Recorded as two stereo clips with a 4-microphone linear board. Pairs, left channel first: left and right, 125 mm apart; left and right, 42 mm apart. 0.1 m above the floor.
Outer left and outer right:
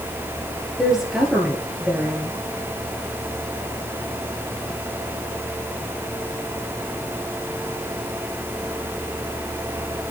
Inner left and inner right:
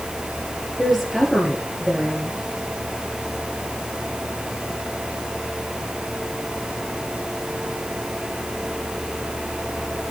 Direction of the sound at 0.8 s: 5° right (ahead or behind).